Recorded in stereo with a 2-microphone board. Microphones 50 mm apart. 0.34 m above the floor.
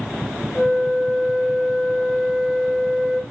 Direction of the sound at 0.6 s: 5° left (ahead or behind).